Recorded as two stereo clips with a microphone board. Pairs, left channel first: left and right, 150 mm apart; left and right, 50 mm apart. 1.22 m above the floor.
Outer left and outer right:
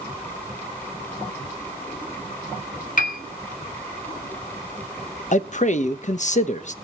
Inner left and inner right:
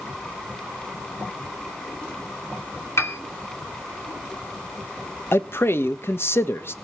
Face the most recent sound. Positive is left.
turn(degrees=50)  # may be behind; listen again after turning